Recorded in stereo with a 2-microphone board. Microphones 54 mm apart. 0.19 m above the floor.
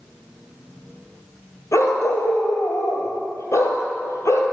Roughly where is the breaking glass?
I don't hear breaking glass.